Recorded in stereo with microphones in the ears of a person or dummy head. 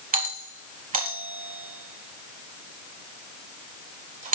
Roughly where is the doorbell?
Right.